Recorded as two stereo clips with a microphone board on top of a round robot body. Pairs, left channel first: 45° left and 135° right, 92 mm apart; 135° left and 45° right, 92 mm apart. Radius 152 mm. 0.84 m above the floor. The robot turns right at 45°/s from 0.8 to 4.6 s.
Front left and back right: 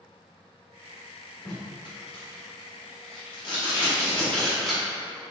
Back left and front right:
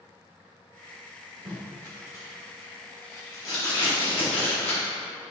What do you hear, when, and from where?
1.4 s tape being pulled: 10° right, 1.4 m; by 4.8 s 135° left, 1.4 m